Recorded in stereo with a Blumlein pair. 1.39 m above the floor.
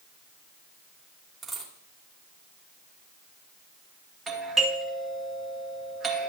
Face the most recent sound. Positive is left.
turn(degrees=-20)